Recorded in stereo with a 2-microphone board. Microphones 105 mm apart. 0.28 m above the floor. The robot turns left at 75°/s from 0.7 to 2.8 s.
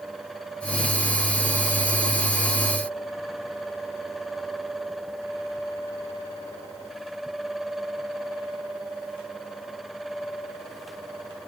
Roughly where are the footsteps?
I don't hear footsteps.